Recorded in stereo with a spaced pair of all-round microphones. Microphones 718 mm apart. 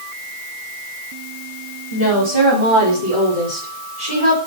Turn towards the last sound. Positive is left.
turn(degrees=40)  # may be behind; listen again after turning